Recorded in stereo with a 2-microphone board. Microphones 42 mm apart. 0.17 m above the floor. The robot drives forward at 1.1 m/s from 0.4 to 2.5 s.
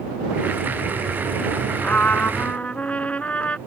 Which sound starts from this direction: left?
A trumpet, at 1.8 s.